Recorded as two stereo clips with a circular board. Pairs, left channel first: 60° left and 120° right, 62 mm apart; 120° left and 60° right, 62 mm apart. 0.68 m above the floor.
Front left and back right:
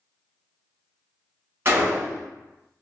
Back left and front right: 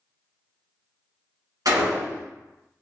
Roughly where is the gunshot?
Ahead right.